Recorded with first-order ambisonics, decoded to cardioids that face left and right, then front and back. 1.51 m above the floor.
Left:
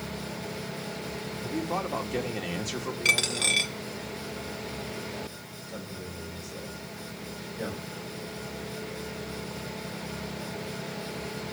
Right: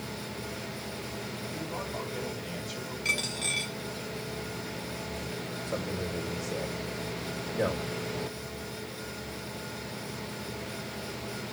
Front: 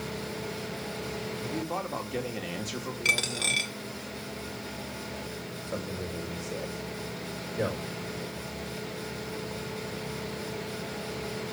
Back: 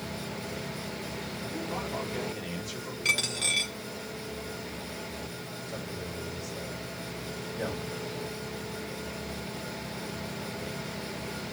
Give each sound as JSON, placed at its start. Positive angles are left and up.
{"t": 1.4, "sound": "a man speaking", "azimuth_deg": 60, "distance_m": 3.0}
{"t": 3.0, "sound": "a dropped coin", "azimuth_deg": 70, "distance_m": 1.1}
{"t": 5.7, "sound": "a man speaking", "azimuth_deg": -45, "distance_m": 5.0}